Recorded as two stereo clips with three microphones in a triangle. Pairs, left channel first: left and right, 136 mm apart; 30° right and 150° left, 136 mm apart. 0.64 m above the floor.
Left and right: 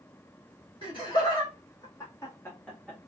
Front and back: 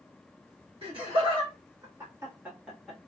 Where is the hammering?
I don't hear hammering.